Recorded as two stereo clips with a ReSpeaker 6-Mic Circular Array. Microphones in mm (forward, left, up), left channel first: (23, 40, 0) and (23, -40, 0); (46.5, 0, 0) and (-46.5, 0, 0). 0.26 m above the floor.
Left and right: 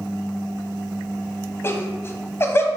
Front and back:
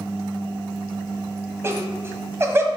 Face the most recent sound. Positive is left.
turn(degrees=130)